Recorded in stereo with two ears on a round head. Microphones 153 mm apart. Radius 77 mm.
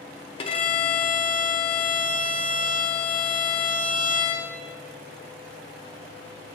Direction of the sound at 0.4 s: 30° left (ahead or behind).